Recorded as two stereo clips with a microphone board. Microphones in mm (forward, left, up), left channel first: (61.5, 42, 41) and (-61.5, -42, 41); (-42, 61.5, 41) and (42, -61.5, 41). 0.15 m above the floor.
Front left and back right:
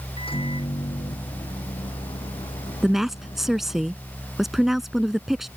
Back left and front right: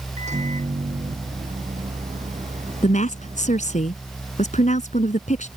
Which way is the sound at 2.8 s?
125° left.